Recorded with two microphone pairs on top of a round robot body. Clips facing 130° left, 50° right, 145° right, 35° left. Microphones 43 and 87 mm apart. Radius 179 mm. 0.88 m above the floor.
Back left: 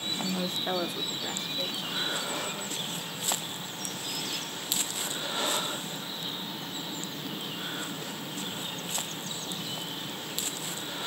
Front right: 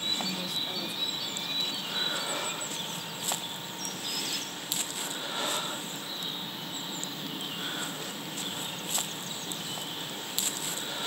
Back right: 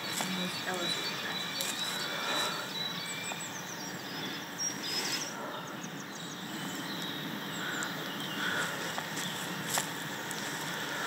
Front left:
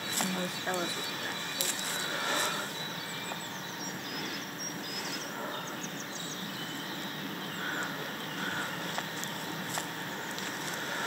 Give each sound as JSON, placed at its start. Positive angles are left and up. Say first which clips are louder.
{"t": 0.2, "sound": "a woman speaking", "louder": "back left 2 dB, front left 4 dB", "azimuth_deg": 70, "distance_m": 0.8}